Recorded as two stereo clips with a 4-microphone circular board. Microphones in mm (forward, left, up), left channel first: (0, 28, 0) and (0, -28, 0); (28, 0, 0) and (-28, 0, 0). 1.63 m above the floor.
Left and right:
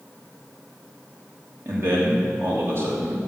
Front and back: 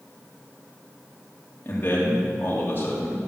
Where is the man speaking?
50° right, 3 m.